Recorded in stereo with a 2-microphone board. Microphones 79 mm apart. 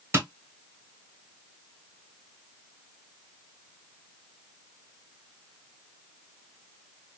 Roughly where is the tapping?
Right.